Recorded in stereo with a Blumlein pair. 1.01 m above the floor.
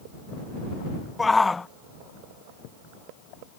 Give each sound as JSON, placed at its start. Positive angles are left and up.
{"t": 1.2, "sound": "a shout", "azimuth_deg": 10}